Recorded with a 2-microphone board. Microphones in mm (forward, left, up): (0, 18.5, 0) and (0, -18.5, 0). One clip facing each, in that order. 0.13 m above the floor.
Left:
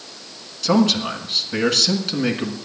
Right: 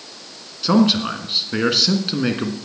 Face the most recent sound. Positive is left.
turn(degrees=-15)  # may be behind; listen again after turning